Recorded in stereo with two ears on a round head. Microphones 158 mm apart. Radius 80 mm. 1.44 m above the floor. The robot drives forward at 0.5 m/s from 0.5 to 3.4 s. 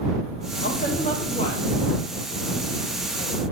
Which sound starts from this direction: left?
A woman speaking, at 0.6 s.